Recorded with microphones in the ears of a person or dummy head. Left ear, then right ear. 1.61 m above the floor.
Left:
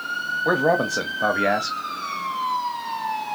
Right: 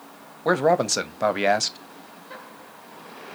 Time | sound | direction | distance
0.5 | a man speaking | 70° right (ahead or behind) | 0.6 m